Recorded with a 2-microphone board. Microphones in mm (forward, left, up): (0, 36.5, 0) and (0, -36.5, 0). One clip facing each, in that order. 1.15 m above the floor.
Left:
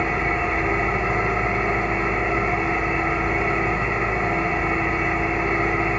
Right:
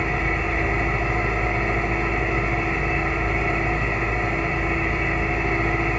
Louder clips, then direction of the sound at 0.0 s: Left 2 dB; 45° left (ahead or behind).